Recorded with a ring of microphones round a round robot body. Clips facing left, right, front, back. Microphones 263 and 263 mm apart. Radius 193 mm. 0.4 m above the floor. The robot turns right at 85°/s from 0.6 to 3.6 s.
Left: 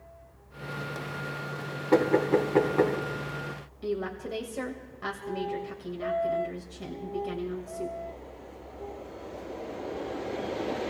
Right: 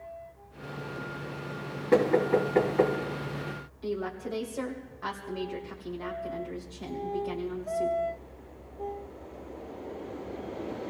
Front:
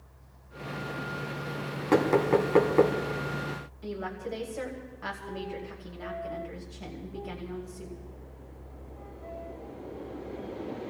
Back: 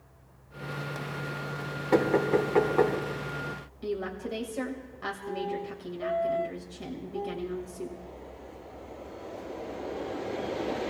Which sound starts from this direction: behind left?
A woman speaking, at 3.8 s.